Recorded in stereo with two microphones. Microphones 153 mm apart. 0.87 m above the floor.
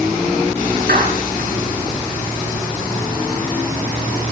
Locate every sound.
0.9 s a clap: 85° right, 9.5 m